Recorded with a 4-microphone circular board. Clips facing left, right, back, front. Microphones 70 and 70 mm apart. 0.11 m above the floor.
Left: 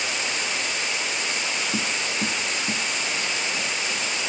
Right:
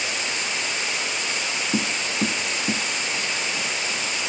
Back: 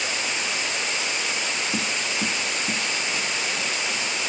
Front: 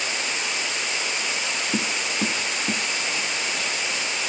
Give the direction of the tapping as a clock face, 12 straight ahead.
2 o'clock.